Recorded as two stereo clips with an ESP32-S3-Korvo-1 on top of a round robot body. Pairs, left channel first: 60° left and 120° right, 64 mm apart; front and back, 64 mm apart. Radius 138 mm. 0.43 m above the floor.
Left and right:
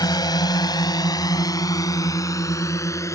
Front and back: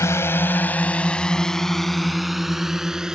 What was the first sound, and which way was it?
A drone, 45° left.